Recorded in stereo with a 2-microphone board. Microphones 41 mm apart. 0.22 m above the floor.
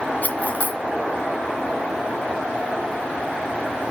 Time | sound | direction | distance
0.2 | cutlery clinking | 50° left (ahead or behind) | 1.2 m